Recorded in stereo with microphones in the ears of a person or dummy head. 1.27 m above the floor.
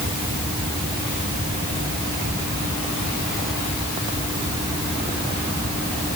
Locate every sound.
Only background noise.